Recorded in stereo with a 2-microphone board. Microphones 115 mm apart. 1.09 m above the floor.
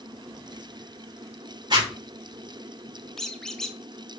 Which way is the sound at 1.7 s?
40° right (ahead or behind).